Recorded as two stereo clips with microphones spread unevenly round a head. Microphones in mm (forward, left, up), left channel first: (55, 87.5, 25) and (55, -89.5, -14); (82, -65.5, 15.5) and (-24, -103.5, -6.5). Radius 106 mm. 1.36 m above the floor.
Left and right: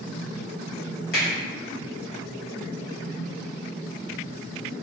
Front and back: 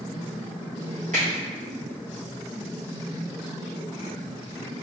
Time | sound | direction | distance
1.1 | a finger snap | 145° left | 1.8 m